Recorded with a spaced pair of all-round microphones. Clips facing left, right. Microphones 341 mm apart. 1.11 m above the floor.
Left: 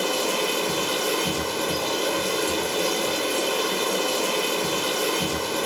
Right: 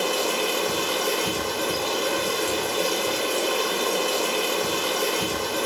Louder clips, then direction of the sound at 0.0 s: Even; 55° left (ahead or behind).